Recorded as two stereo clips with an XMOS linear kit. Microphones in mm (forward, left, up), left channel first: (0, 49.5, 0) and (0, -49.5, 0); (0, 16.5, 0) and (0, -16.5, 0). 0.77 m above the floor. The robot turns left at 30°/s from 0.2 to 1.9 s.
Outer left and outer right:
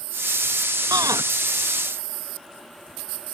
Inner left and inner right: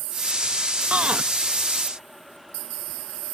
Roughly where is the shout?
Right.